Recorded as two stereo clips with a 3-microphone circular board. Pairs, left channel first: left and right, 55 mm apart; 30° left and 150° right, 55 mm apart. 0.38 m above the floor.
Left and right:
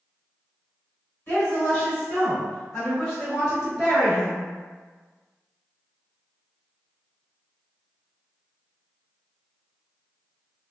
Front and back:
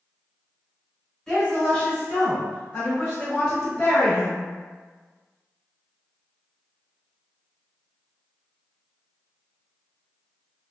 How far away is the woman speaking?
About 1.7 m.